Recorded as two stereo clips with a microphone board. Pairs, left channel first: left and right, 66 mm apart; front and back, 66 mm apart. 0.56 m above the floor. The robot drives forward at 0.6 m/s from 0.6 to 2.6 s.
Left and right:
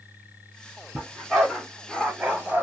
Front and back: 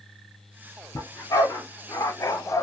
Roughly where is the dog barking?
Ahead.